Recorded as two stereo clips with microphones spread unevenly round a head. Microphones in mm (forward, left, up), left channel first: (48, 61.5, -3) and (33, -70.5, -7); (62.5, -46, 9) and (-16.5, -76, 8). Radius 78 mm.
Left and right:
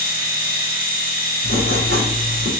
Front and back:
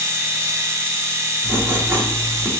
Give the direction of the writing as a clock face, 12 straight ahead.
3 o'clock.